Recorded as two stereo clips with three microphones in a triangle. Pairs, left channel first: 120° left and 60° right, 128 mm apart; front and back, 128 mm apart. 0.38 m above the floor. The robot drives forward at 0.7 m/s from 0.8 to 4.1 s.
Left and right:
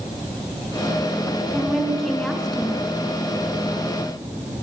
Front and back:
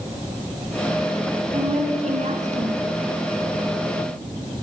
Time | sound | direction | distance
1.5 | a woman speaking | 150° right | 5 m